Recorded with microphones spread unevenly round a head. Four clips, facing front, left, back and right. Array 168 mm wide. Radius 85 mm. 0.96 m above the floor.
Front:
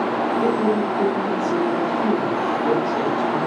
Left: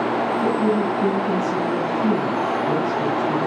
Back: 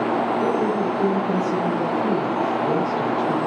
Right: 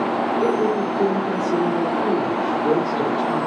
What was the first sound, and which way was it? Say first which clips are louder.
A woman speaking: even, front 1 dB; 65° right.